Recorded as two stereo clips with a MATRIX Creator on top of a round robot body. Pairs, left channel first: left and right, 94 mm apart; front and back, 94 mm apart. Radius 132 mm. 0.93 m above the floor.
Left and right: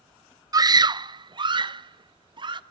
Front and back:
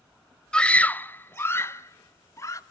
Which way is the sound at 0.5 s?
75° right.